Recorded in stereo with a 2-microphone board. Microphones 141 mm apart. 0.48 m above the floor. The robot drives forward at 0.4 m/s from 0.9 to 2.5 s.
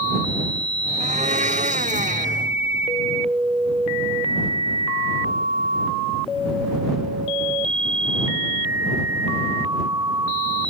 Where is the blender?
55° right (ahead or behind); by 2.5 s 60° right (ahead or behind).